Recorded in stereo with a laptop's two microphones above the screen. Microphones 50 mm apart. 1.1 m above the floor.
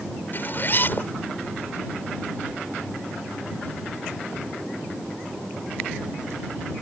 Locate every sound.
0.3 s a zipper: 45° left (ahead or behind)